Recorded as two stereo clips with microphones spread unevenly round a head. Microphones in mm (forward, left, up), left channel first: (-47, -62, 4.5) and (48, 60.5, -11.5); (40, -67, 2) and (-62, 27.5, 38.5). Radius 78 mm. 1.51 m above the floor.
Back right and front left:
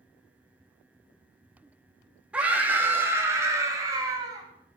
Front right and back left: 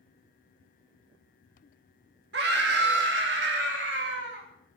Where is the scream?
135° left, 2.5 m; by 4.5 s 120° left, 3.5 m.